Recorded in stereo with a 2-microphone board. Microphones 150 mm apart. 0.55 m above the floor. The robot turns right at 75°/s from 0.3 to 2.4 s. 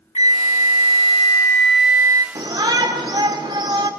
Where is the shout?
30° right (ahead or behind), 1.8 m.